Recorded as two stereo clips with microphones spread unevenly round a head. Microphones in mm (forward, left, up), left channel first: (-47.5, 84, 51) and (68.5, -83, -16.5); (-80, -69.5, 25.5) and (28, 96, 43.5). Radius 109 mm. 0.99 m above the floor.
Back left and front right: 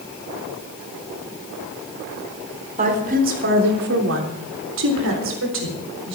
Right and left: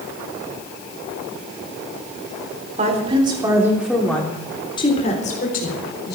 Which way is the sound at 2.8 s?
5° right.